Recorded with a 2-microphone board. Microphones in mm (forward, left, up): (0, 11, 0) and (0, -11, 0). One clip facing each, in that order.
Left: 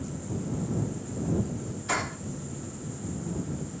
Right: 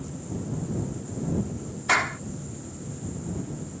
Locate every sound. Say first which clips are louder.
1.9 s a clap: right 7 dB; 70° right (ahead or behind)